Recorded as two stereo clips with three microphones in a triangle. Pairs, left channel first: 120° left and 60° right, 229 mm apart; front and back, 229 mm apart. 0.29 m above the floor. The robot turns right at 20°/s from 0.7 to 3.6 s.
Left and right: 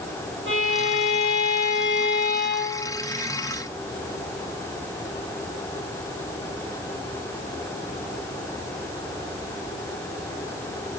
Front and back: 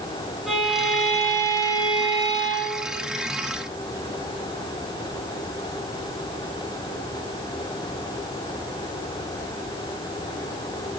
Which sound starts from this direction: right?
A violin, at 0.5 s.